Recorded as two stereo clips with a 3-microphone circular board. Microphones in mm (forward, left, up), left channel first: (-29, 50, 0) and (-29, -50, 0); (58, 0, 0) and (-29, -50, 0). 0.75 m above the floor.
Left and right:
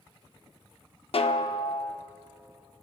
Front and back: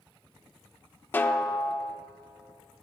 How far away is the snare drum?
About 0.5 m.